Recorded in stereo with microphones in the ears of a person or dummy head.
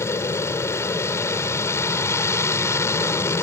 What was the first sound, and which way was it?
An aircraft, 10° left (ahead or behind).